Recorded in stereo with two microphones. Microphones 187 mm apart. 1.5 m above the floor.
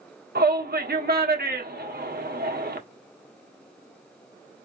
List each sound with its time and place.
0.3 s a shout: 55° right (ahead or behind), 1.4 m